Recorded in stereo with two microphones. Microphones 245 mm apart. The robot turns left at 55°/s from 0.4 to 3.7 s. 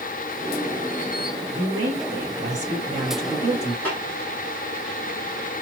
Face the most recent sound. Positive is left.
turn(degrees=5)  # may be behind; listen again after turning